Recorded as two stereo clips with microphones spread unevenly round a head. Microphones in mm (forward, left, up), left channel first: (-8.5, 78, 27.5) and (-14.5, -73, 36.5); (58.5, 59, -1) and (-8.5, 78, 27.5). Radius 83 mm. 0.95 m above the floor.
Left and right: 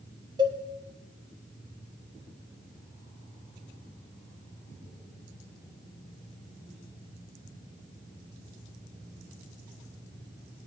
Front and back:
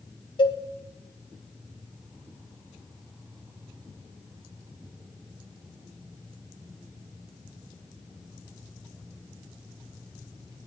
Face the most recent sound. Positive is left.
turn(degrees=-30)